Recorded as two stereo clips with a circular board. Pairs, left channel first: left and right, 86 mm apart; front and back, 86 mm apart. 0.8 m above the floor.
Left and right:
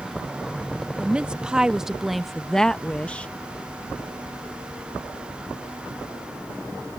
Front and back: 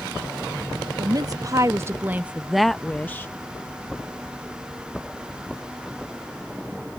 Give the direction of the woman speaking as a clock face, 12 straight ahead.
5 o'clock.